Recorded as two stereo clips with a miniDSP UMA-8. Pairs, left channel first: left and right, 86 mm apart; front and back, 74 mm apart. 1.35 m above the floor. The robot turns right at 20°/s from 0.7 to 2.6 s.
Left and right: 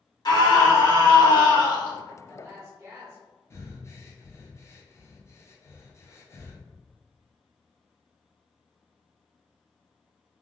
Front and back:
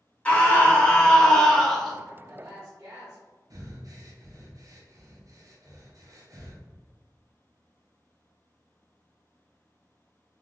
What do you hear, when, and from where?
0.2 s a scream: 70° left, 1.0 m; by 2.0 s 95° left, 1.0 m
2.1 s a woman speaking: 150° right, 0.7 m; by 3.2 s 140° right, 0.7 m
3.5 s breathing: 145° left, 0.5 m